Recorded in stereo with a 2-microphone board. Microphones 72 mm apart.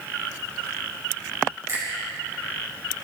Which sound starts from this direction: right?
A finger snap, at 1.7 s.